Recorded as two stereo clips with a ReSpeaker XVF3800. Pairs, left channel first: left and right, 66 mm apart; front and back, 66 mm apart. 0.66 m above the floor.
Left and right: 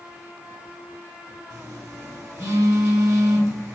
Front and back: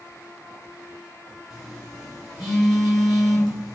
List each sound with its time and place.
1.5 s a phone buzzing: 95° right, 1.4 m